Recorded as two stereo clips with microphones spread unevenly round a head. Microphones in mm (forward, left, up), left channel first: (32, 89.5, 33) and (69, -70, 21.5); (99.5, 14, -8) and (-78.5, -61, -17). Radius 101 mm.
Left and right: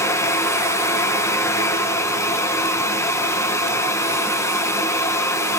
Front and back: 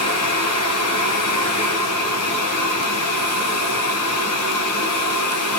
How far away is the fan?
About 1.9 m.